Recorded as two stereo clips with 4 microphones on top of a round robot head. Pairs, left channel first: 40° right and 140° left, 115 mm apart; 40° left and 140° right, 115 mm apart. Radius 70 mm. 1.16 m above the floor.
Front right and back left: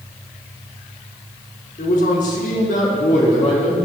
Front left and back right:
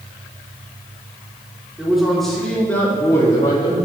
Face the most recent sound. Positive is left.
turn(degrees=-10)